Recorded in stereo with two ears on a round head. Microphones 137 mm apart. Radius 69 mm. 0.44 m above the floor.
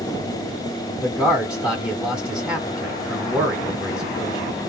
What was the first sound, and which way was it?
A man speaking, 5° right (ahead or behind).